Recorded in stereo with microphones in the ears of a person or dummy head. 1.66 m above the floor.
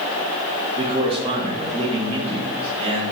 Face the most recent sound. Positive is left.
turn(degrees=-35)  # may be behind; listen again after turning